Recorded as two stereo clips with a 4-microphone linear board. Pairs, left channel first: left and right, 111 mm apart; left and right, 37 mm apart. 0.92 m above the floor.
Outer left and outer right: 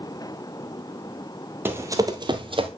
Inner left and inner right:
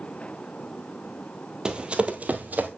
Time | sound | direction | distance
1.6 | running footsteps | 20° right (ahead or behind) | 1.2 m